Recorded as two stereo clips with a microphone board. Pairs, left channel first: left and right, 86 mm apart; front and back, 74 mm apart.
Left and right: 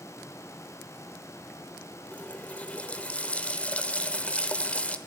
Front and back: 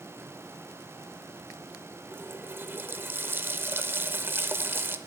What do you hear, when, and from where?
2.1 s a running tap: 150° left, 0.5 m